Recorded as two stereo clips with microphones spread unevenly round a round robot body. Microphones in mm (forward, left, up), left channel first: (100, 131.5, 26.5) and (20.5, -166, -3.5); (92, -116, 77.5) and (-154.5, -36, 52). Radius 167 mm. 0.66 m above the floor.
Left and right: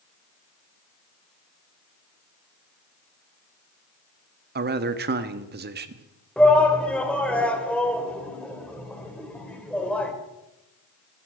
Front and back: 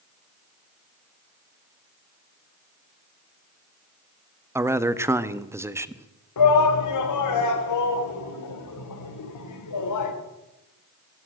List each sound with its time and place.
4.5 s a man speaking: 130° right, 0.9 m
6.4 s a shout: 15° right, 2.5 m